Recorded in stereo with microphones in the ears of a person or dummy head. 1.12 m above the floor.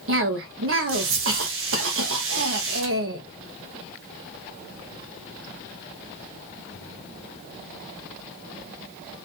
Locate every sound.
0.1 s a cough: 60° right (ahead or behind), 1.3 m